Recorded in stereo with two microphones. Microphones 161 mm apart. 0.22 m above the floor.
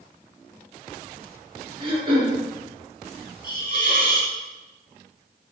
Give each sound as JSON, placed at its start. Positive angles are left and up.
{"t": 1.8, "sound": "throat clearing", "side_deg": -35, "distance_m": 1.9}
{"t": 3.4, "sound": "a hiss", "side_deg": -55, "distance_m": 0.8}